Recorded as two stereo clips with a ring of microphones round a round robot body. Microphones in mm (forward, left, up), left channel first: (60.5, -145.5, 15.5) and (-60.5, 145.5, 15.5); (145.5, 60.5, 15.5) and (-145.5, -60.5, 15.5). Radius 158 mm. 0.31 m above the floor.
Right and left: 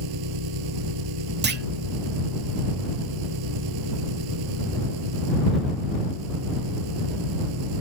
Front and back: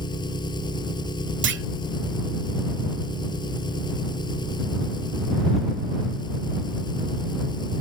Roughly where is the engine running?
Left.